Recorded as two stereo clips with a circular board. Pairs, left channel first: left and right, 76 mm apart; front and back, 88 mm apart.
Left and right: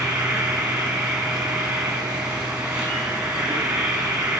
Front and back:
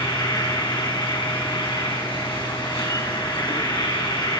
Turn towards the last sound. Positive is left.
turn(degrees=-15)